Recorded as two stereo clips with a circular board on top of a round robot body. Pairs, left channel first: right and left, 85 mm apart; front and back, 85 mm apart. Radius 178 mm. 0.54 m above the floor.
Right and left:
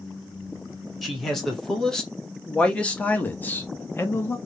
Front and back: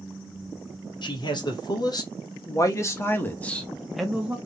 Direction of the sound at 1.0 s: Straight ahead.